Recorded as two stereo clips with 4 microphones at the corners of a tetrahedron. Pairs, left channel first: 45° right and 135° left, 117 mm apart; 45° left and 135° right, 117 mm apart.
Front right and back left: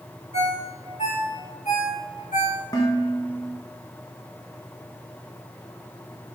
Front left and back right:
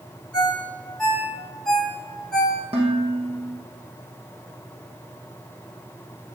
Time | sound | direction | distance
0.3 | a ringtone | 40° right | 6 m
2.7 | dishes clattering | 105° right | 4 m